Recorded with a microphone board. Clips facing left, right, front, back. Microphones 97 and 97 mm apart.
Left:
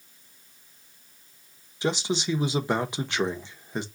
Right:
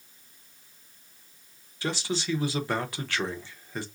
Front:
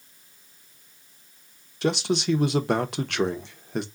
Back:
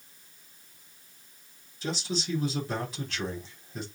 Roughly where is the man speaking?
Ahead.